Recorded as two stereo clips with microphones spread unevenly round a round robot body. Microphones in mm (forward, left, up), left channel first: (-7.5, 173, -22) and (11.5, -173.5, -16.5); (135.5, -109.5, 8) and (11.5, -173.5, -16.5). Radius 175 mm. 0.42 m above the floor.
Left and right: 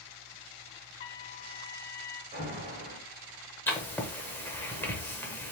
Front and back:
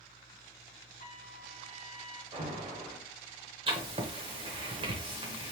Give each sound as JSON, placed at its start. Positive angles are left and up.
{"t": 1.0, "sound": "a trumpet", "azimuth_deg": 75, "distance_m": 0.5}
{"t": 2.3, "sound": "an alarm", "azimuth_deg": -145, "distance_m": 1.9}
{"t": 3.7, "sound": "writing", "azimuth_deg": 175, "distance_m": 0.7}